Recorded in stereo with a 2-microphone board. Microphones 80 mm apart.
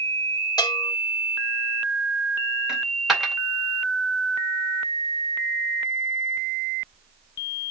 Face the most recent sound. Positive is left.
turn(degrees=-5)  # may be behind; listen again after turning